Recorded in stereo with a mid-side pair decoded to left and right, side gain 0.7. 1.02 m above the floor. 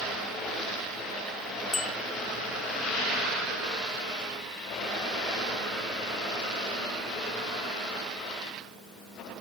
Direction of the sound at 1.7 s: 15° left.